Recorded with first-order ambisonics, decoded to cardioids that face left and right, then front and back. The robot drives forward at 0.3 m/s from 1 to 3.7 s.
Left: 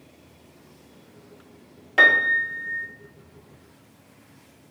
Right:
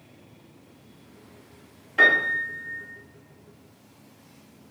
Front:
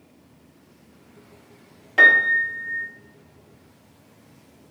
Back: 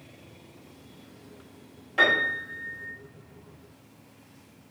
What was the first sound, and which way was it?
A piano, 70° left.